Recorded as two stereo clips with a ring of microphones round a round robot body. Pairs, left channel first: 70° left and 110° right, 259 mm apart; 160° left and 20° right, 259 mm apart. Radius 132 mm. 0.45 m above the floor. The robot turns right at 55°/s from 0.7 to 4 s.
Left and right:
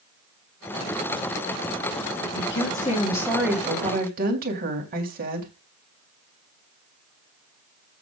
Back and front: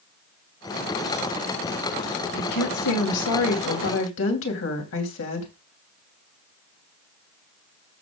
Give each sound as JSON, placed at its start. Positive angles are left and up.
{"t": 2.4, "sound": "a woman speaking", "azimuth_deg": 100, "distance_m": 3.0}